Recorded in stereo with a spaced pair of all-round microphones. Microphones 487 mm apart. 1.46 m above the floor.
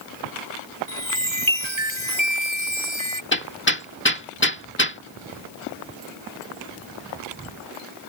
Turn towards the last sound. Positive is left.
turn(degrees=20)  # may be behind; listen again after turning